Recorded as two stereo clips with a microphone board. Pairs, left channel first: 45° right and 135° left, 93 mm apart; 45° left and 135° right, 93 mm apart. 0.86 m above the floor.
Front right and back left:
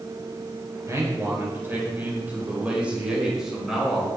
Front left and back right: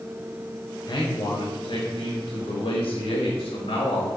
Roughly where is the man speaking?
Left.